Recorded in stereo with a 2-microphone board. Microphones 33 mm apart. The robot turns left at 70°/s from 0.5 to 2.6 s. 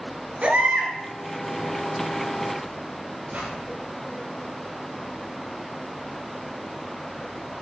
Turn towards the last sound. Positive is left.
turn(degrees=-50)  # may be behind; listen again after turning